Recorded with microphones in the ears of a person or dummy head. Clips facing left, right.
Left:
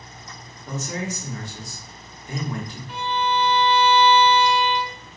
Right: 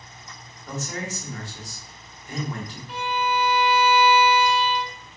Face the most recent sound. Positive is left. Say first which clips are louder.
# left 1 dB
turn(degrees=-5)  # may be behind; listen again after turning